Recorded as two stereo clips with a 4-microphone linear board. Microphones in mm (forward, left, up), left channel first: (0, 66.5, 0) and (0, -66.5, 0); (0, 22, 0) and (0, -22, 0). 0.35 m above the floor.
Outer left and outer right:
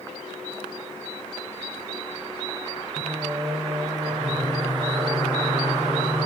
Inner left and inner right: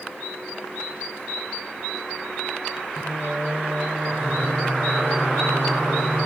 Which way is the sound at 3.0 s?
30° right (ahead or behind).